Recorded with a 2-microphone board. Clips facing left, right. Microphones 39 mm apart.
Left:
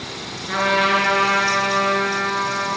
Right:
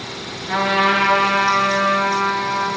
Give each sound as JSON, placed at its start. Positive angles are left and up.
{"t": 0.5, "sound": "a trumpet", "side_deg": -5, "distance_m": 3.0}